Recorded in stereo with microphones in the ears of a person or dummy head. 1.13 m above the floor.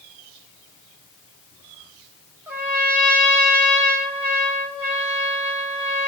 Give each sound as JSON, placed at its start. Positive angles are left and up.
{"t": 2.5, "sound": "a trumpet", "side_deg": -10, "distance_m": 7.0}